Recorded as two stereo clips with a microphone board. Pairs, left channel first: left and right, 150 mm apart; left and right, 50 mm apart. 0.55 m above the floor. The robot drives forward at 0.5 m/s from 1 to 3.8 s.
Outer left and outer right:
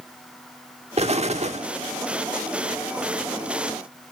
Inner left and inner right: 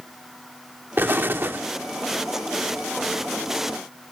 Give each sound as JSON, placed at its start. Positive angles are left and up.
{"t": 1.0, "sound": "an explosion", "side_deg": -45, "distance_m": 1.1}